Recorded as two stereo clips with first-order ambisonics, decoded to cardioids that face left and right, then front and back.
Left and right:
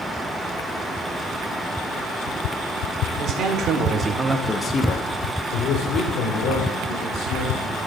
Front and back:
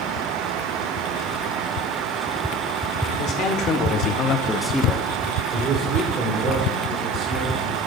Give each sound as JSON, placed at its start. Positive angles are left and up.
{"t": 3.2, "sound": "a man speaking", "azimuth_deg": -40, "distance_m": 1.7}